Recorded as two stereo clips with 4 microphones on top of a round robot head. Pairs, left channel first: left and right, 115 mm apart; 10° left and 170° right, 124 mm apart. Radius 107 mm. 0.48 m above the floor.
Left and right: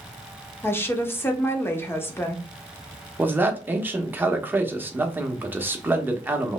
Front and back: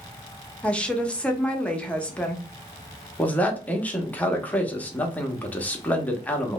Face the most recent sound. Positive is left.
turn(degrees=-45)